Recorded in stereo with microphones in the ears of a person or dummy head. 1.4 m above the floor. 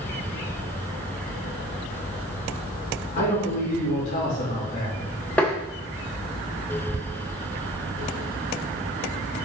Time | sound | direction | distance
3.1 | a man speaking | 45° left (ahead or behind) | 3 m
5.4 | tapping | 5° left (ahead or behind) | 0.9 m